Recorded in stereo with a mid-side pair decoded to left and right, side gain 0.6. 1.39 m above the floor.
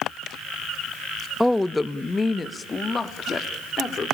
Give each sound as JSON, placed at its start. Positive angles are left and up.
{"t": 1.4, "sound": "a woman speaking", "azimuth_deg": 0, "distance_m": 0.7}